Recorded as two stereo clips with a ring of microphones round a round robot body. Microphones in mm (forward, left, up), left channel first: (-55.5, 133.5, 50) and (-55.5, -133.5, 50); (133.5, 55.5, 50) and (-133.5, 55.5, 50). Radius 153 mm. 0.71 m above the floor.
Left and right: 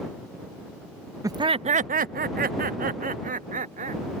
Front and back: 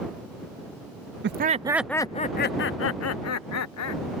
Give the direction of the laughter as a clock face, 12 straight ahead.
5 o'clock.